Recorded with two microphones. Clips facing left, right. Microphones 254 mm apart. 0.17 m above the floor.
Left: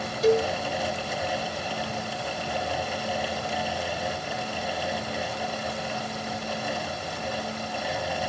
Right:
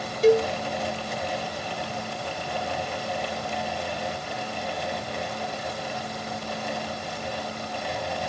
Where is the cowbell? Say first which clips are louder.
Right 3 dB; 30° right (ahead or behind), 1.8 m.